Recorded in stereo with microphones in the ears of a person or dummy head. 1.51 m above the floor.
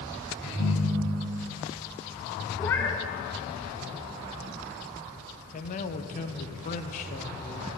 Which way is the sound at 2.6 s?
15° left (ahead or behind).